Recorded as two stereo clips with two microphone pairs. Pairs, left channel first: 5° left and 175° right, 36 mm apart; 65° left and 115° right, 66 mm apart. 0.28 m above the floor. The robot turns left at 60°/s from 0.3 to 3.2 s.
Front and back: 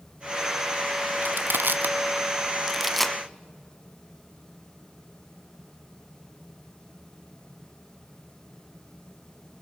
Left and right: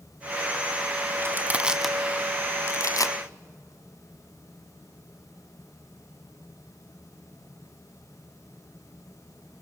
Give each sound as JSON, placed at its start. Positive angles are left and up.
{"t": 1.2, "sound": "crushing", "azimuth_deg": -160, "distance_m": 0.9}